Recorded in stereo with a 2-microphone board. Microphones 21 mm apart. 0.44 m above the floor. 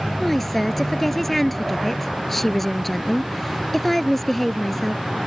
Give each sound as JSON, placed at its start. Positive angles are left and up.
{"t": 0.2, "sound": "a woman speaking", "side_deg": 10}